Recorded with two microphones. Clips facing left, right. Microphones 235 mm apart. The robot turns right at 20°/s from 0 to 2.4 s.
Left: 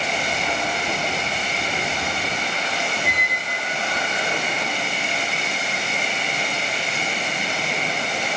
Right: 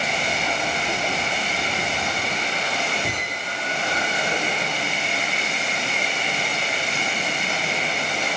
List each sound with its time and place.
3.0 s a squeak: 35° right (ahead or behind), 1.1 m